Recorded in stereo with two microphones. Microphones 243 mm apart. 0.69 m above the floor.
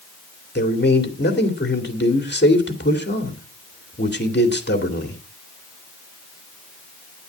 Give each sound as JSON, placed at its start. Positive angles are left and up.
{"t": 0.6, "sound": "a man speaking", "side_deg": 45, "distance_m": 2.5}